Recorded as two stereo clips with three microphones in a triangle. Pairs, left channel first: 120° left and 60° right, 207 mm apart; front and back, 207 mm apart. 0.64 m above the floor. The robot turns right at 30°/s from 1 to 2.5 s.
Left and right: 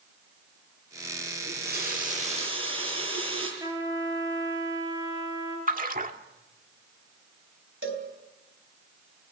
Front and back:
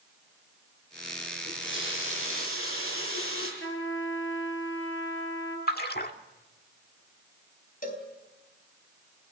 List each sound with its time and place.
1.4 s a running tap: 30° right, 8.5 m; by 3.5 s 5° left, 8.5 m
3.6 s a trumpet: 15° left, 5.5 m
5.7 s a splash: 25° right, 1.6 m
7.8 s a cowbell: 45° right, 3.5 m